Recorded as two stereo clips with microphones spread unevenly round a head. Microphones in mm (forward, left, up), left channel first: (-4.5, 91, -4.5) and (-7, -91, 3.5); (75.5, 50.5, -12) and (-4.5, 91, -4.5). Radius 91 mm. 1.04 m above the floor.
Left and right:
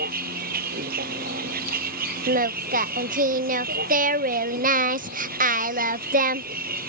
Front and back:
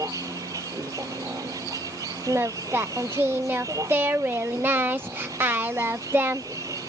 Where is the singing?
130° right.